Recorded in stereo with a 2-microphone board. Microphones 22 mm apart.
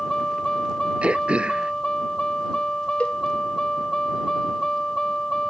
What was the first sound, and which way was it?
A vehicle, 35° left (ahead or behind).